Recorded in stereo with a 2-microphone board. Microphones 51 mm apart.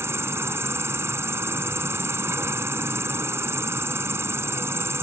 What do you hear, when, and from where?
0.0 s an insect: 65° right (ahead or behind)